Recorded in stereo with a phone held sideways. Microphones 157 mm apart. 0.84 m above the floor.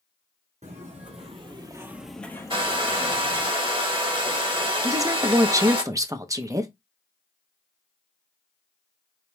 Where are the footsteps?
50° right (ahead or behind), 1.6 m; by 3.5 s 40° left (ahead or behind), 1.7 m.